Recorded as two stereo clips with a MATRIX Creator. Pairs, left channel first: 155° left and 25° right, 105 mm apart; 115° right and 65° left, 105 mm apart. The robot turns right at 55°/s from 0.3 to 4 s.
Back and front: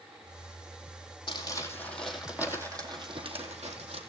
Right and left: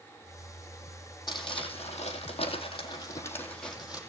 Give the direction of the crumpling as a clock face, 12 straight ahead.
5 o'clock.